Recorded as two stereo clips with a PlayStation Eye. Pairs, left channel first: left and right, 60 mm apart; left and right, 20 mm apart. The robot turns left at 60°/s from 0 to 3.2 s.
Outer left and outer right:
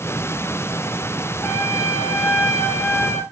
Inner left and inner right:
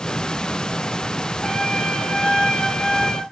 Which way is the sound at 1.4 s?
135° left.